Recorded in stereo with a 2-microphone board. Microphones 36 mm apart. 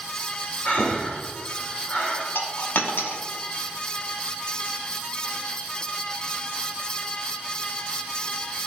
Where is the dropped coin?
70° left (ahead or behind), 0.8 m.